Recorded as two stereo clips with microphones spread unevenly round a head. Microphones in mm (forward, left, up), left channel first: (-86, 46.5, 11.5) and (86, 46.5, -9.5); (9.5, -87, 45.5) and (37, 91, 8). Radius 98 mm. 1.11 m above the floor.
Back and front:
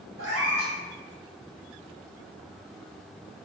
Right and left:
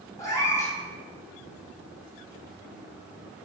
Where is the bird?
No bird in this recording.